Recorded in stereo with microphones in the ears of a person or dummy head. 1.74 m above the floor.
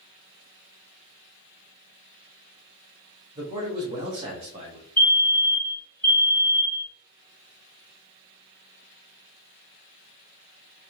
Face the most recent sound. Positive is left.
turn(degrees=10)  # may be behind; listen again after turning